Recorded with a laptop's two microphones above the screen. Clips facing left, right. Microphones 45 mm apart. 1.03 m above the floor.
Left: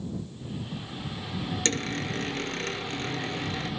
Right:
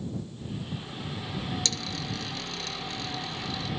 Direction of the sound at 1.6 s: 40° left (ahead or behind).